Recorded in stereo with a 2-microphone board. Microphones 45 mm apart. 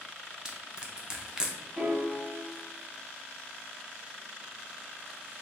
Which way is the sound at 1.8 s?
45° right (ahead or behind).